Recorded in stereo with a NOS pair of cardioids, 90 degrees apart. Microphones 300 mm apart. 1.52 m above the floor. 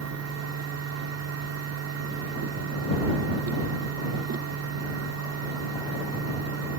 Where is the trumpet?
I don't hear a trumpet.